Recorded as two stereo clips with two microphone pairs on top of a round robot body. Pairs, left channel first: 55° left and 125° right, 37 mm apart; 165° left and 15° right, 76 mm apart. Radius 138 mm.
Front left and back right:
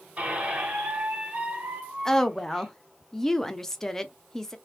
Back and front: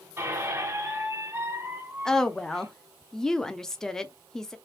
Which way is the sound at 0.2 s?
70° right.